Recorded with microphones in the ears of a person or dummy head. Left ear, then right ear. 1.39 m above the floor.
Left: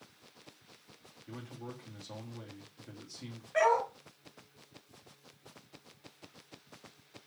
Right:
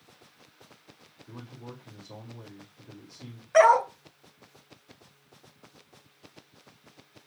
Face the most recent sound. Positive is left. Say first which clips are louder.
# right 9 dB
turn(degrees=-40)  # may be behind; listen again after turning